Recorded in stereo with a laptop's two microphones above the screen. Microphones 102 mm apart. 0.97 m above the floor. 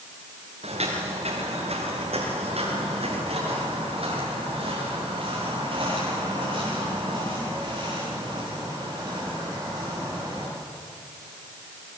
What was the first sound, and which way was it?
Footsteps, 80° right.